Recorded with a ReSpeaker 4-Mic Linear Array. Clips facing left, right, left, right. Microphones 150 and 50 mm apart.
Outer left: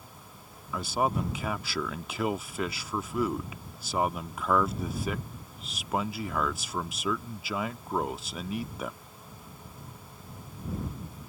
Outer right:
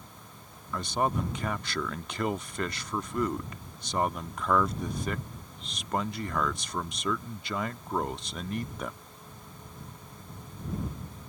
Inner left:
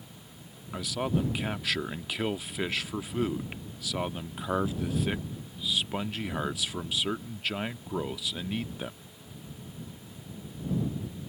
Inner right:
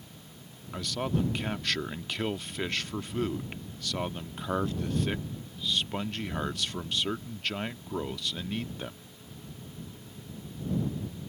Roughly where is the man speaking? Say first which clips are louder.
Outer left 1 dB, inner left 1 dB; centre.